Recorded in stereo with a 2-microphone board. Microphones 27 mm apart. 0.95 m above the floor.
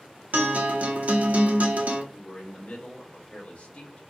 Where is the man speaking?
50° left (ahead or behind), 1.1 m.